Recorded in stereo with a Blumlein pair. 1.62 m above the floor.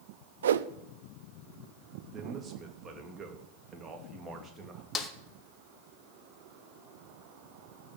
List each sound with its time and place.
0.4 s a whoosh: 65° right, 0.6 m
2.1 s a man speaking: 20° right, 3 m
5.0 s a snare drum: 20° left, 1.5 m